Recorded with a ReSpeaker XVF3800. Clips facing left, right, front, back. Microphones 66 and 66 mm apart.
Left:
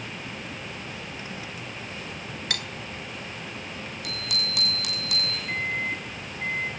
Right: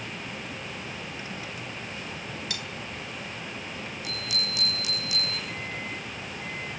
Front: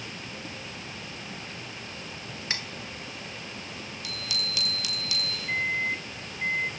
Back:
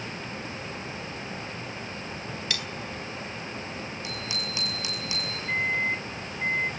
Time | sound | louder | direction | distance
2.5 | cutlery clinking | left 4 dB, front 1 dB | 60° left | 0.8 m
4.0 | a bicycle bell | left 2 dB, back 2 dB | 115° left | 6.5 m
5.5 | a microwave | left 6 dB, back 2 dB | 95° left | 1.9 m